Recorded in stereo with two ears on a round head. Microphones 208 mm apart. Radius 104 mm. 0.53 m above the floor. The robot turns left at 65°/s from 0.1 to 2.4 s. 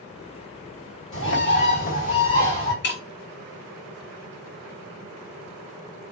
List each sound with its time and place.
1.1 s a bird: 105° left, 1.9 m; by 2.7 s 20° left, 1.9 m
2.8 s breaking glass: 50° left (ahead or behind), 1.0 m